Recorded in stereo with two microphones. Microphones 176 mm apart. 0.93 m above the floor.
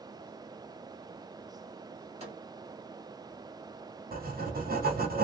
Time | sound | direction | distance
2.2 | a microwave | 35° right (ahead or behind) | 2.0 m
4.1 | writing | 60° right (ahead or behind) | 1.0 m